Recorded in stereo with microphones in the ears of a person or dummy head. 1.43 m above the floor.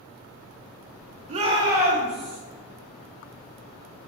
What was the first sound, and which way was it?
A shout, 40° right (ahead or behind).